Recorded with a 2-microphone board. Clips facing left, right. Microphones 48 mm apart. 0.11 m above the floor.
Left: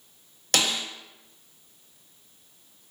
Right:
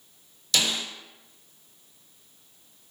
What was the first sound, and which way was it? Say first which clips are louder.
A snare drum: left 1 dB; 60° left (ahead or behind).